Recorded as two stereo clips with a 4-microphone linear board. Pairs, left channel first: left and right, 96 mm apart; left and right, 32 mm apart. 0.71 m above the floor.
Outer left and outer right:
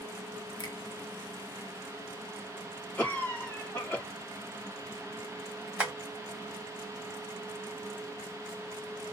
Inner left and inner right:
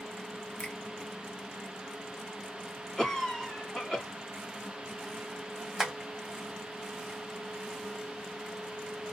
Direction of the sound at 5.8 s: 15° right (ahead or behind).